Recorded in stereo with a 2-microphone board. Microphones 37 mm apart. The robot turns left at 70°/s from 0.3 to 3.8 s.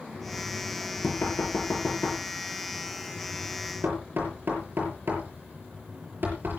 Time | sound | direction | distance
0.1 | knocking | 5° left (ahead or behind) | 6.5 m